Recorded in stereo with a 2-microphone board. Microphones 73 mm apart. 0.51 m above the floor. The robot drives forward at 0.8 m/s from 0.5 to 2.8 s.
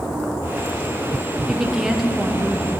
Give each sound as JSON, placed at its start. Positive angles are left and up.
{"t": 1.5, "sound": "a woman speaking", "side_deg": -5, "distance_m": 0.9}